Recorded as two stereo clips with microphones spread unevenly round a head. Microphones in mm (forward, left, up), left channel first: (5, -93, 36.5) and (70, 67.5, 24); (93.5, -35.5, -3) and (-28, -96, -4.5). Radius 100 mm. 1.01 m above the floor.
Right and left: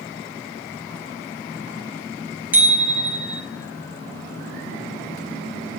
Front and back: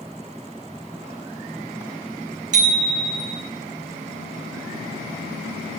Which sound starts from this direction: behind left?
A bicycle bell, at 2.5 s.